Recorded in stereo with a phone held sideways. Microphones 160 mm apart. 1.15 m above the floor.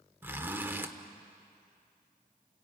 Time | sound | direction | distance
0.2 | a zipper | 15° right (ahead or behind) | 1.3 m